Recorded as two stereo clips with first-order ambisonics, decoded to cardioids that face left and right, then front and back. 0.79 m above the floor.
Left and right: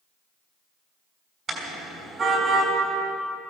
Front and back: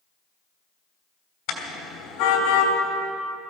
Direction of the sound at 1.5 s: 30° right.